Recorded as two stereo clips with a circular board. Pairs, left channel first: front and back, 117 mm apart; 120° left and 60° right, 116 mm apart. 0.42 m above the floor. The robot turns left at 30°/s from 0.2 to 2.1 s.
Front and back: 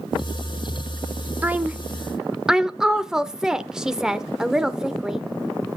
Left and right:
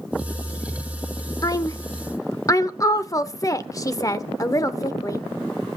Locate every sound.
1.4 s a woman speaking: 120° left, 0.8 m; by 5.2 s 100° left, 0.8 m